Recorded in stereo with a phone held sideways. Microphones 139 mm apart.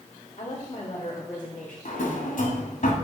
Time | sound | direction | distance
0.4 | a woman speaking | 45° left (ahead or behind) | 2 m
1.9 | a drawer | 70° left (ahead or behind) | 1.7 m